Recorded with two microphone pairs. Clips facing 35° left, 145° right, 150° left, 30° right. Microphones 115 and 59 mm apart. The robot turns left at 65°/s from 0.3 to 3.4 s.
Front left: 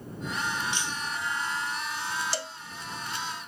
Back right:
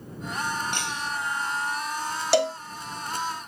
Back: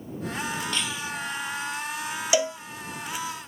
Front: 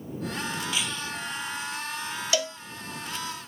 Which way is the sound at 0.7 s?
110° right.